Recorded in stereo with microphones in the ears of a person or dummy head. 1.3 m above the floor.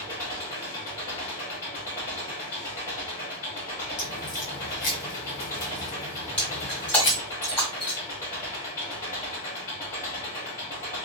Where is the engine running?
15° left (ahead or behind), 1.4 m.